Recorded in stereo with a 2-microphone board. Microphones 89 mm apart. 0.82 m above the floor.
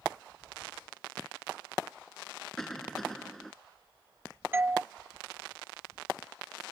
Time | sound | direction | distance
2.6 | a cough | 5° left (ahead or behind) | ?
4.5 | a doorbell | 25° right (ahead or behind) | ?